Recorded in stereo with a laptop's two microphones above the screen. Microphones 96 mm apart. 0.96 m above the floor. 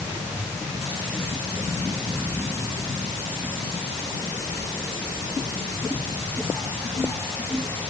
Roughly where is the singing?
No singing in this recording.